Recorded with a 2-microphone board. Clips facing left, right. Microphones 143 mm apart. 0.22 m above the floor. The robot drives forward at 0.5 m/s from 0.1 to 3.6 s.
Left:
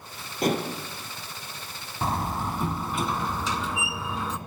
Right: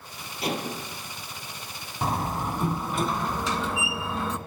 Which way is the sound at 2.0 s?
Centre (ahead or behind).